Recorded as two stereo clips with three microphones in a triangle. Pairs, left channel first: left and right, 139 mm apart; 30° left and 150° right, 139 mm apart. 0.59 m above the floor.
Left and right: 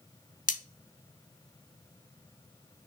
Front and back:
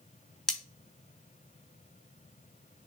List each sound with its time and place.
0.5 s cutlery clinking: 115° left, 0.7 m